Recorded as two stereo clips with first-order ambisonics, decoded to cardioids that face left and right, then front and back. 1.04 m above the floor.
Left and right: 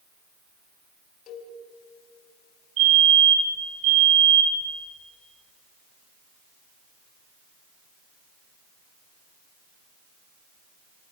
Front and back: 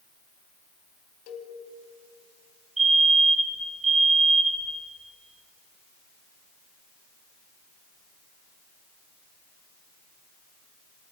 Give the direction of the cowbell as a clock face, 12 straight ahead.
11 o'clock.